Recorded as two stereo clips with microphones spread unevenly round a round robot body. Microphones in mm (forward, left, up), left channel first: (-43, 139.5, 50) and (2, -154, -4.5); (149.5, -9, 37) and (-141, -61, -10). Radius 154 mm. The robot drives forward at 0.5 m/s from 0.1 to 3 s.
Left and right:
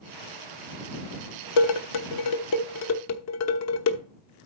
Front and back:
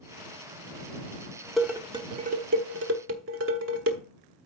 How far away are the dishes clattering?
About 0.8 m.